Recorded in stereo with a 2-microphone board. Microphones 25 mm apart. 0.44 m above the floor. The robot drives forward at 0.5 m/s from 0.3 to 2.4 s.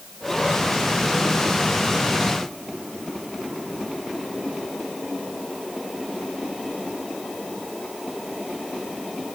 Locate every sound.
Only background noise.